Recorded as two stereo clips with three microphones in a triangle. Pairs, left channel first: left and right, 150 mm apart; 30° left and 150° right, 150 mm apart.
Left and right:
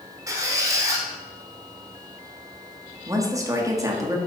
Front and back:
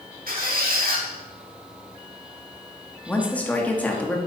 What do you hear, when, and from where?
0.3 s a squeak: 160° right, 1.3 m
3.1 s a woman speaking: 45° right, 1.0 m